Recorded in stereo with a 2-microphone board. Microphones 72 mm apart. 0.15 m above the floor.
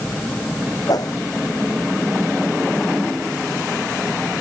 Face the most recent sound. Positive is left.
turn(degrees=55)  # may be behind; listen again after turning